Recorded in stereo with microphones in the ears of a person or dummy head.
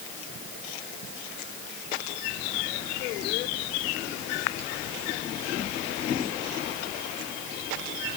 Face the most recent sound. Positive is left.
No sound to turn to.